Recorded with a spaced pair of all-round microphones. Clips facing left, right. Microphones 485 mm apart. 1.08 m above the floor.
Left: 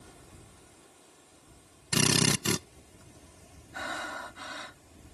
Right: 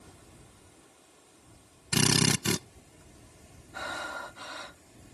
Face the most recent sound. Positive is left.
turn(degrees=35)  # may be behind; listen again after turning